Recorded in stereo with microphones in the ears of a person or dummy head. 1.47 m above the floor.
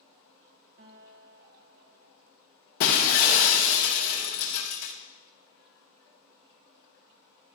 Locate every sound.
0.8 s a guitar: 45° right (ahead or behind), 1.0 m
2.8 s breaking glass: 45° left (ahead or behind), 0.7 m